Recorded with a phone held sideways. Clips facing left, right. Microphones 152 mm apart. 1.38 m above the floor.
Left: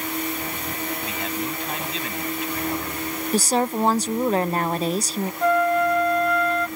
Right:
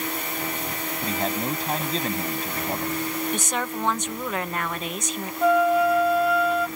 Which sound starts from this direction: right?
A man speaking, at 1.0 s.